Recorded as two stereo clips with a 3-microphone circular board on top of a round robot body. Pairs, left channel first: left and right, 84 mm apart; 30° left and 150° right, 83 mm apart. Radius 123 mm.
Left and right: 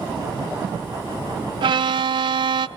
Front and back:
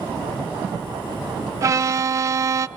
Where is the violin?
100° right, 0.6 m.